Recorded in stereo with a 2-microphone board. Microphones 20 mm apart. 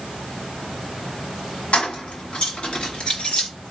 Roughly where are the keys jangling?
Left.